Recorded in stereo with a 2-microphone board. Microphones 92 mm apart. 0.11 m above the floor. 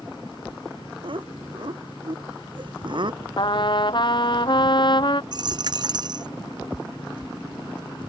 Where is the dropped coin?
55° right (ahead or behind).